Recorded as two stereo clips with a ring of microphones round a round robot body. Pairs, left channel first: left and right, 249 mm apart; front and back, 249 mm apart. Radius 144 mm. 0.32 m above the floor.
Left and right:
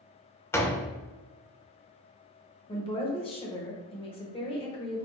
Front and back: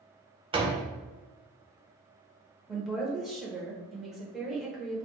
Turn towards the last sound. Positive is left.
turn(degrees=95)